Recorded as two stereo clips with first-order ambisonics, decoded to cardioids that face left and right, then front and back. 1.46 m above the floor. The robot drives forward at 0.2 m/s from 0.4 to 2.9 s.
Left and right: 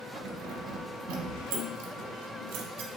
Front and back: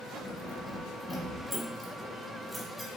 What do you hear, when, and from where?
0.1 s keys jangling: 80° right, 1.3 m; by 2.9 s 100° right, 1.3 m